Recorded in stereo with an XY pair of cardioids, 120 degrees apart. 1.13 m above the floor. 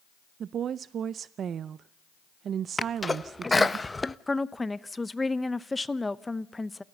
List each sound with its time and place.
0.4 s a woman speaking: 50° right, 0.6 m
2.8 s a sneeze: 15° left, 1.0 m
4.3 s a woman speaking: 10° left, 0.9 m